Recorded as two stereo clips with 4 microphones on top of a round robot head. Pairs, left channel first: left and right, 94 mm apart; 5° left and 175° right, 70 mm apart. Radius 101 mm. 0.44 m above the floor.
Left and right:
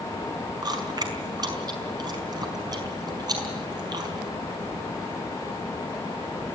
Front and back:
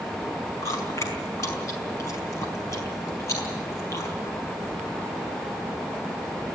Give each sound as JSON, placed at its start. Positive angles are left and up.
{"t": 0.6, "sound": "chewing", "azimuth_deg": -50, "distance_m": 4.5}